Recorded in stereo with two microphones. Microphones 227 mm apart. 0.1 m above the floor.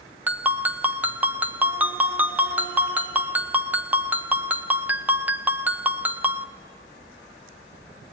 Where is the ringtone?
5° right (ahead or behind), 1.2 m.